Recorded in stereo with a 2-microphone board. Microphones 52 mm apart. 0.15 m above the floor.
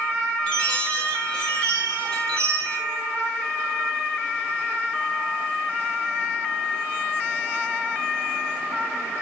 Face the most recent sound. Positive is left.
turn(degrees=20)  # may be behind; listen again after turning